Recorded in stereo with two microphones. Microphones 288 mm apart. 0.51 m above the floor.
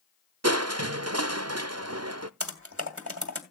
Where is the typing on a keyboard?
50° right (ahead or behind), 2 m.